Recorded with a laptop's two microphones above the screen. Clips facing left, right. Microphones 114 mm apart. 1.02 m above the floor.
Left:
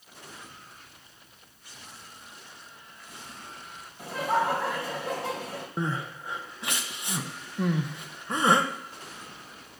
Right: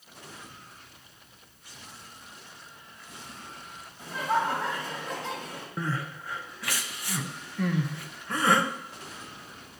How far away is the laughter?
About 4.5 m.